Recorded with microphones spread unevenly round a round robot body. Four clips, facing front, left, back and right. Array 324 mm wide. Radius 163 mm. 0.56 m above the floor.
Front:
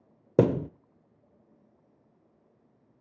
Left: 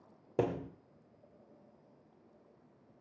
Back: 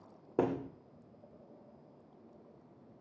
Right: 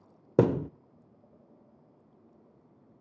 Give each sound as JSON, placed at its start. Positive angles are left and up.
{"t": 0.4, "sound": "a thud", "azimuth_deg": -25, "distance_m": 0.5}